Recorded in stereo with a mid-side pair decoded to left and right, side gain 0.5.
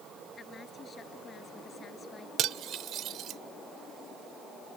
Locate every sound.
0.4 s a woman speaking: 35° left
2.4 s cutlery clinking: 65° right